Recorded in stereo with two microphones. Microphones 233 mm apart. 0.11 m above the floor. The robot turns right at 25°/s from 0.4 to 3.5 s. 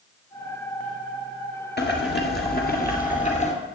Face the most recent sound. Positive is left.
turn(degrees=135)